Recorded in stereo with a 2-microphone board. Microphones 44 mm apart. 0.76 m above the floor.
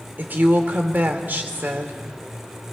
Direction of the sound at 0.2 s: 45° right (ahead or behind).